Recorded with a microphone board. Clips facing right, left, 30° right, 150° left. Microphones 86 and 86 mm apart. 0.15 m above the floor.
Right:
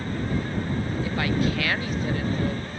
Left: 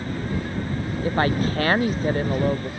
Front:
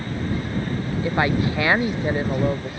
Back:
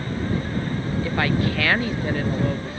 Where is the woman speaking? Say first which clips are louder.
Left 5 dB, front 2 dB; 40° left.